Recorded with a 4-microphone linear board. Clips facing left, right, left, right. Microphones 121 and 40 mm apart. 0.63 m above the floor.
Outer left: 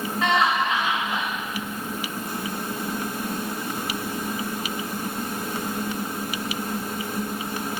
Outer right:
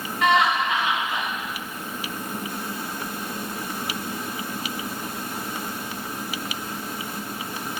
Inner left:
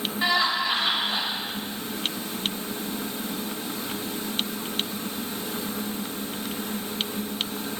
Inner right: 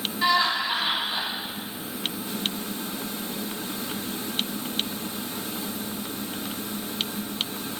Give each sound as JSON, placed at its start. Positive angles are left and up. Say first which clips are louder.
{"t": 0.2, "sound": "laughter", "louder": "outer right 2 dB, inner right 1 dB", "side_deg": 15, "distance_m": 0.7}